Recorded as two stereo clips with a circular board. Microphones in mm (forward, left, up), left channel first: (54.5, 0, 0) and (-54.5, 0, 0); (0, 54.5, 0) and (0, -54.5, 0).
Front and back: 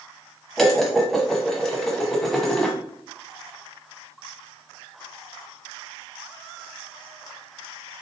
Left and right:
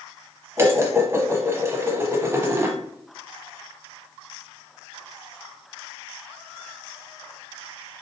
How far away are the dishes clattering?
About 0.8 m.